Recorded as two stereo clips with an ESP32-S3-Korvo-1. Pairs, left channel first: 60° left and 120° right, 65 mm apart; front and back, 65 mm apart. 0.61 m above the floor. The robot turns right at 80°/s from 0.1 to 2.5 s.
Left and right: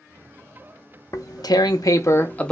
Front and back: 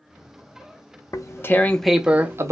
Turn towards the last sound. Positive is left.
turn(degrees=140)